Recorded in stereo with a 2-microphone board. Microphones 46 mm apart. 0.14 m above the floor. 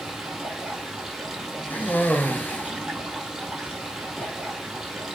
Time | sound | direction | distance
0.0 | running water | 15° right (ahead or behind) | 3.5 m
1.7 | a cough | 40° left (ahead or behind) | 2 m